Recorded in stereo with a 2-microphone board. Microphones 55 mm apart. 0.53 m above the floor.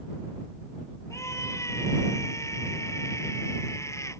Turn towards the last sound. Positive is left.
turn(degrees=70)  # may be behind; listen again after turning